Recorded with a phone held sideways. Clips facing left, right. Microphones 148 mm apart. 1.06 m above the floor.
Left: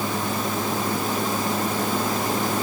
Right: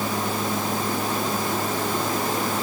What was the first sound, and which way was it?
Only background noise.